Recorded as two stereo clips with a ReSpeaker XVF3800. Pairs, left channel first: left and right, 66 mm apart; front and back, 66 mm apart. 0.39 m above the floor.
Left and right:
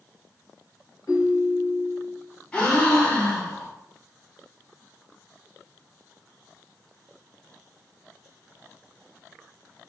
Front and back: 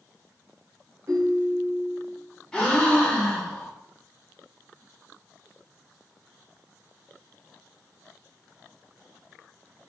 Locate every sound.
1.1 s a ringtone: 130° left, 1.9 m
2.5 s a gasp: 60° left, 1.0 m